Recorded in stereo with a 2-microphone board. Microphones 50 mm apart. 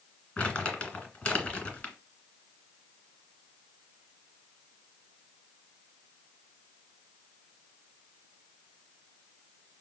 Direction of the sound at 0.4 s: 20° left (ahead or behind).